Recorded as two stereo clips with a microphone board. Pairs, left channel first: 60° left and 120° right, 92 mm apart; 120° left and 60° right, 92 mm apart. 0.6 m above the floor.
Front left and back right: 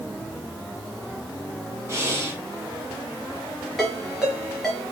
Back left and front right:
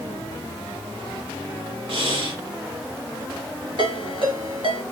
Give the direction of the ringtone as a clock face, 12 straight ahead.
1 o'clock.